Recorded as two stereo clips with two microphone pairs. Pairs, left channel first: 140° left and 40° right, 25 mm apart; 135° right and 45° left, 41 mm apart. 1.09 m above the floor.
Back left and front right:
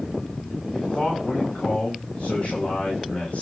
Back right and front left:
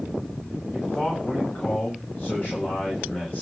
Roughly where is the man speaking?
Behind.